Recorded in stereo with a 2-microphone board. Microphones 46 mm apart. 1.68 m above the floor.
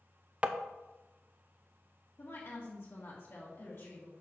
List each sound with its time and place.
0.4 s tapping: 30° right (ahead or behind), 0.5 m
2.2 s a woman speaking: 65° left (ahead or behind), 1.8 m